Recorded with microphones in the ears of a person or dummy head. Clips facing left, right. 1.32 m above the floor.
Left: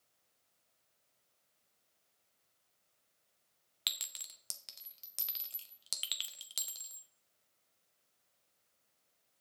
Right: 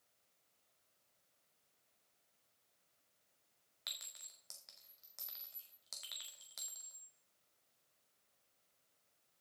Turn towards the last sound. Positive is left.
turn(degrees=40)  # may be behind; listen again after turning